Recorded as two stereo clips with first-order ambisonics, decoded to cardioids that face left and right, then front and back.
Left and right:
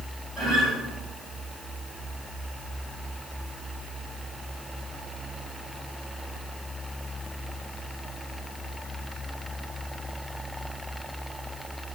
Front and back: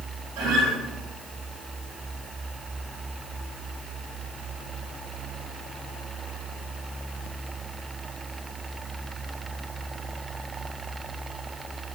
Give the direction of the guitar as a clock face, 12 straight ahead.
6 o'clock.